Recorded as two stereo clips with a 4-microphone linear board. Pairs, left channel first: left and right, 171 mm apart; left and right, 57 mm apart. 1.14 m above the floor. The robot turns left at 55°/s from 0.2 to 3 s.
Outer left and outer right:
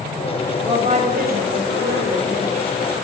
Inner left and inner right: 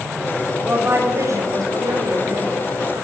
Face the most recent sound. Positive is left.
turn(degrees=-155)